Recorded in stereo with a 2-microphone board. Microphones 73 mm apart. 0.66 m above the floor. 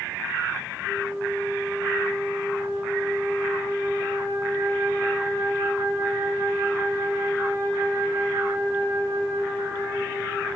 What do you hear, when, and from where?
0.8 s a flute: 40° left (ahead or behind), 7.5 m